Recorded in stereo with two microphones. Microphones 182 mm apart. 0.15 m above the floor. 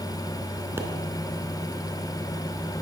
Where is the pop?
15° right (ahead or behind), 1.0 m.